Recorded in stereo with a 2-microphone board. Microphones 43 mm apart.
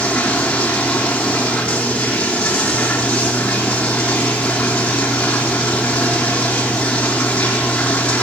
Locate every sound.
0.0 s running water: 25° left (ahead or behind), 5 m